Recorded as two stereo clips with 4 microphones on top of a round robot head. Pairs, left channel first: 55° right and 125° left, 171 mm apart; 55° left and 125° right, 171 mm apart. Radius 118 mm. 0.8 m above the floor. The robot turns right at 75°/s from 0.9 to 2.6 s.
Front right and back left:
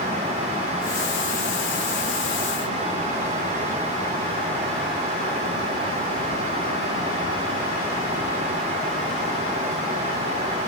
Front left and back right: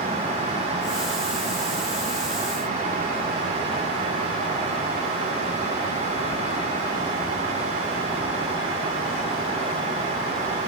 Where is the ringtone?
No ringtone in this recording.